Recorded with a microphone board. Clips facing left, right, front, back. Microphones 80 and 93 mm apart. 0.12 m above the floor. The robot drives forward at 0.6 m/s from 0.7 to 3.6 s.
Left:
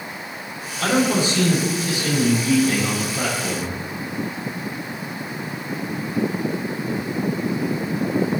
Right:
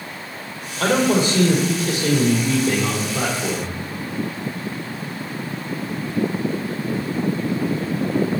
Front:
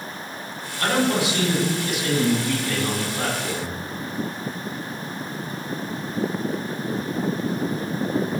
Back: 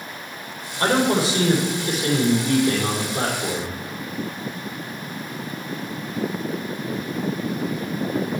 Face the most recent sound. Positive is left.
turn(degrees=-135)